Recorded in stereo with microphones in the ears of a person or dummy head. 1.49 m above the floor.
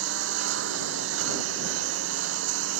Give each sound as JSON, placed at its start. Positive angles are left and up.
{"t": 0.0, "sound": "a lawn mower", "side_deg": -80}